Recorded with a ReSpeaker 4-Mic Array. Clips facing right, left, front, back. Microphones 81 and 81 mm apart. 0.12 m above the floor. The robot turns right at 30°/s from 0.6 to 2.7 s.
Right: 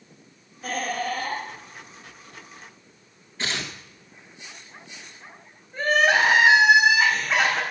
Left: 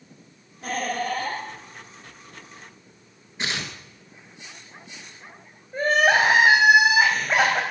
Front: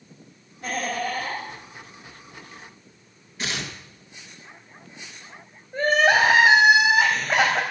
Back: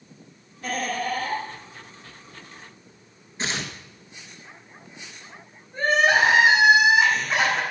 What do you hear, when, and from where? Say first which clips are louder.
0.6 s laughter: left 1 dB, even; 50° left, 4.5 m; by 1.4 s 75° left, 4.5 m
3.4 s tearing paper: even, back 1 dB; 145° left, 1.4 m
5.7 s crying: left 1 dB, front 1 dB; 45° left, 3 m